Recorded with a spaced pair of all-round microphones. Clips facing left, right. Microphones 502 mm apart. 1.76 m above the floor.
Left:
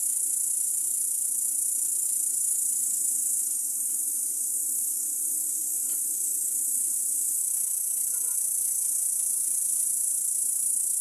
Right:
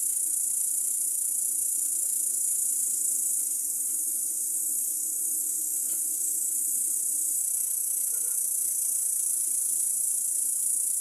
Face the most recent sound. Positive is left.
turn(degrees=15)  # may be behind; listen again after turning